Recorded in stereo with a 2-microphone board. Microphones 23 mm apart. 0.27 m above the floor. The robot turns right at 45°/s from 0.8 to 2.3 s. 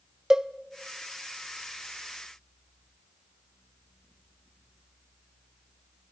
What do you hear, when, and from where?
0.3 s a cowbell: 25° right (ahead or behind), 0.6 m